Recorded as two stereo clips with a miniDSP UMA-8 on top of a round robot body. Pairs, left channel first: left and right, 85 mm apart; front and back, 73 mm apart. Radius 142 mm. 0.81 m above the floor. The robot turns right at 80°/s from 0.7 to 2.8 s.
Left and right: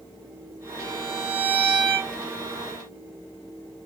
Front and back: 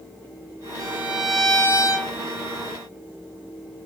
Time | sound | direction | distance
0.8 | a violin | 135° right | 1.5 m